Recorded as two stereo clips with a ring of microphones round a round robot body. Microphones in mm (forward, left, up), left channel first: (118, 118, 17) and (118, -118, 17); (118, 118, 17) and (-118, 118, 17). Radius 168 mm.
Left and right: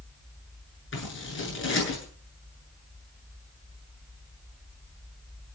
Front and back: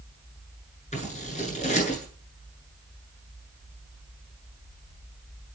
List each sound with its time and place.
0.9 s scissors: 60° left, 8.5 m